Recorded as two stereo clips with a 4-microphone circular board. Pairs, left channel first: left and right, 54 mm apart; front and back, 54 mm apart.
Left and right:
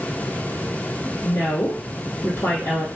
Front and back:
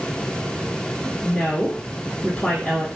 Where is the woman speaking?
70° left, 1.7 m.